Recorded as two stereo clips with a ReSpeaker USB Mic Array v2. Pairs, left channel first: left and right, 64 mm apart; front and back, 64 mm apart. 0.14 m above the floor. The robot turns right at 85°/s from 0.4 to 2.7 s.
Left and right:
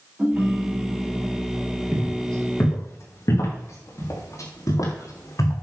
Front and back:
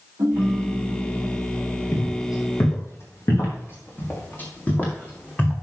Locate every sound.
0.2 s a ringtone: 155° right, 7 m; by 1.5 s 65° right, 7 m
1.9 s footsteps: 30° right, 6.5 m; by 5.5 s 70° left, 6 m